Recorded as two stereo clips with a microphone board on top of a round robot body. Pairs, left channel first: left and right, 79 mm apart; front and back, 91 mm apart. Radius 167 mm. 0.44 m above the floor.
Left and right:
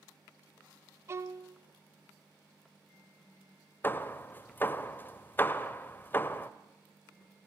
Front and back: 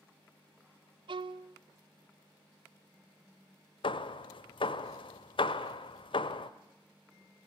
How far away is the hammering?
About 0.9 m.